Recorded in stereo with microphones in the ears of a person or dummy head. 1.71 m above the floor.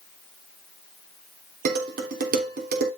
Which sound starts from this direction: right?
Dishes clattering, at 1.6 s.